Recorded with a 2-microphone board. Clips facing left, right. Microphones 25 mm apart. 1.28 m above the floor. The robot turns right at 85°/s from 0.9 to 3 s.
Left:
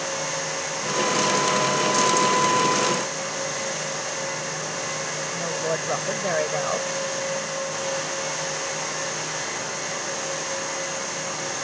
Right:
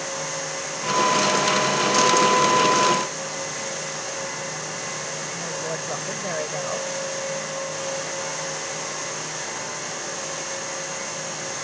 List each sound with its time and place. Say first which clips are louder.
5.3 s a woman speaking: left 5 dB; 20° left (ahead or behind)